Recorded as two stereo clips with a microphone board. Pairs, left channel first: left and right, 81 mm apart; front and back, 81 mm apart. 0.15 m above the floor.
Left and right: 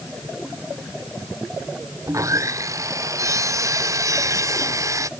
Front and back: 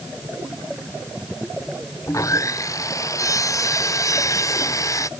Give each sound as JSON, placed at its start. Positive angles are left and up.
{"t": 2.1, "sound": "sawing", "azimuth_deg": -45}